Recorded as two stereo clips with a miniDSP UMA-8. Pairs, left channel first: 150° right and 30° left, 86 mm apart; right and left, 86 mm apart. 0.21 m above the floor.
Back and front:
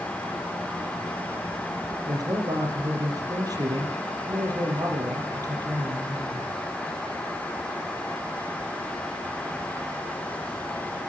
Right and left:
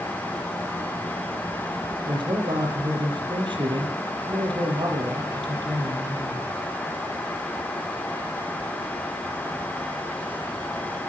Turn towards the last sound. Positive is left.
turn(degrees=75)